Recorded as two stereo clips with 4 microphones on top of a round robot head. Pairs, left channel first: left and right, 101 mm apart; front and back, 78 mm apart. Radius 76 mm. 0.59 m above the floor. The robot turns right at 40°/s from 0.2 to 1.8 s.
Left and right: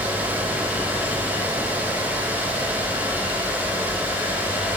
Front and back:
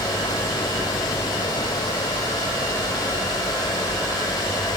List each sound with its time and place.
Only background noise.